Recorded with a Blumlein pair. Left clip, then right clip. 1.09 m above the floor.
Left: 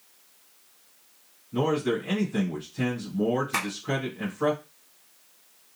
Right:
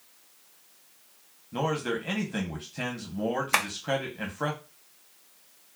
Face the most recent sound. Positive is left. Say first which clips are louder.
# right 3 dB
turn(degrees=-35)